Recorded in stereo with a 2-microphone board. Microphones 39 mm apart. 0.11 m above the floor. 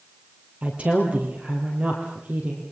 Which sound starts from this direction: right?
A woman speaking, at 0.6 s.